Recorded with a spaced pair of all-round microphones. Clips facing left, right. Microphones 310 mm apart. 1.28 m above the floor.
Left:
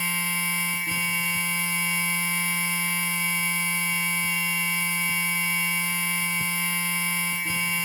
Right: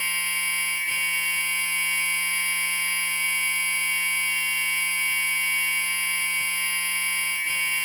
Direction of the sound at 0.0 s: 60° left (ahead or behind).